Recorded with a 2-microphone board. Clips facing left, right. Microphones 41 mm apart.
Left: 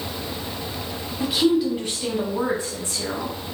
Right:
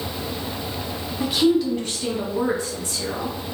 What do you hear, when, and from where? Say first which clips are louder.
1.2 s a woman speaking: right 1 dB; centre (ahead or behind), 1.2 m; by 3.4 s 30° left (ahead or behind), 1.8 m